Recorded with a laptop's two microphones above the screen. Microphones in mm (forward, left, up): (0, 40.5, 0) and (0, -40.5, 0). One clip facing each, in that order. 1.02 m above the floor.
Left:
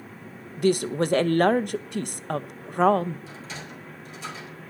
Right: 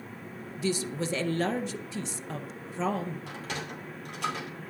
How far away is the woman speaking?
About 0.6 m.